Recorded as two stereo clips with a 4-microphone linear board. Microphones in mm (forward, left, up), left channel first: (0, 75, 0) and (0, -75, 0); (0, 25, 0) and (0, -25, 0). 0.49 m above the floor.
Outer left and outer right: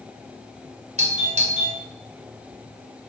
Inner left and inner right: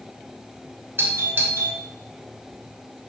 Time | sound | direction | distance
1.0 | a doorbell | 55° right (ahead or behind) | 2.5 m